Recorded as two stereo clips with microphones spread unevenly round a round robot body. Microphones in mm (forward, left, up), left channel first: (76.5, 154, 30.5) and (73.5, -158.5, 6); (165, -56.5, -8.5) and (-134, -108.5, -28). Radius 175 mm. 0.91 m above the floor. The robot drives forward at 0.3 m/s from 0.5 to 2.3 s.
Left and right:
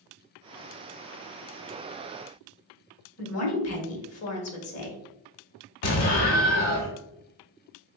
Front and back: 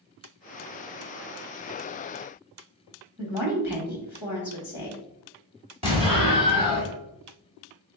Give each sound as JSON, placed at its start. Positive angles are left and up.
{"t": 3.2, "sound": "a woman speaking", "azimuth_deg": 110, "distance_m": 0.9}
{"t": 5.8, "sound": "an explosion", "azimuth_deg": 115, "distance_m": 0.9}